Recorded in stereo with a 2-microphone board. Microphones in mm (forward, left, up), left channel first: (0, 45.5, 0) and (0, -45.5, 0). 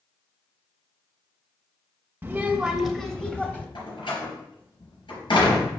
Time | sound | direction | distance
2.2 | a child speaking | 20° right (ahead or behind) | 0.5 m
3.8 | a door slam | 65° left (ahead or behind) | 3.5 m